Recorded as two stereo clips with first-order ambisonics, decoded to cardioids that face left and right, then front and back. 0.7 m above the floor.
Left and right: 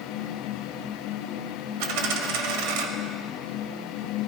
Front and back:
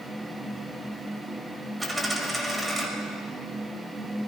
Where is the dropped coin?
90° right, 1.5 m.